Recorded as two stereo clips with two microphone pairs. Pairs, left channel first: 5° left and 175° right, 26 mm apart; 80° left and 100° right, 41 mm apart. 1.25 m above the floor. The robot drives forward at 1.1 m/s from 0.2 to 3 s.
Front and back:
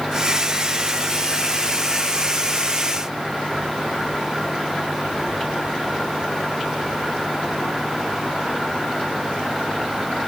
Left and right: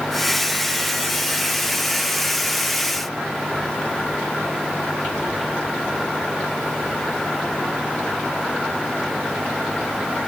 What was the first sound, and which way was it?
Only background noise.